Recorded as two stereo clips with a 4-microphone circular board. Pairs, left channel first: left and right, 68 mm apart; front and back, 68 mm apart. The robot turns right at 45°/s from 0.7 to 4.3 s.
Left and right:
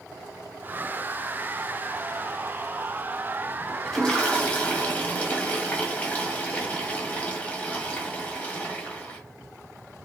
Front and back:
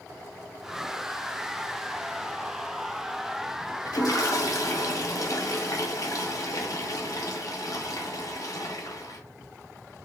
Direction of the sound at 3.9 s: Straight ahead.